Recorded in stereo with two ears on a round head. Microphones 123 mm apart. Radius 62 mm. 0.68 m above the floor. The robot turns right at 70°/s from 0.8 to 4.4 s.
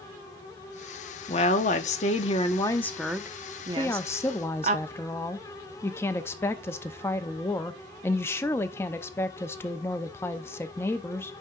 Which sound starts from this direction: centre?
A woman speaking, at 3.8 s.